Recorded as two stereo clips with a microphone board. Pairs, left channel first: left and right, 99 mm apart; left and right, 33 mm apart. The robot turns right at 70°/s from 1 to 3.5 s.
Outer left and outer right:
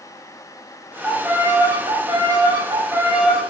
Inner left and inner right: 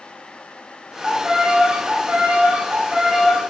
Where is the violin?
170° right, 1.0 m; by 3.4 s 5° right, 1.0 m.